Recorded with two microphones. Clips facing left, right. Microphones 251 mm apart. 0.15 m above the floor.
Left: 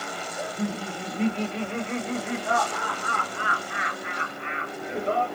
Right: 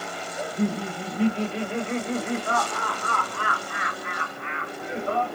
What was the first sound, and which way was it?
Laughter, 15° right (ahead or behind).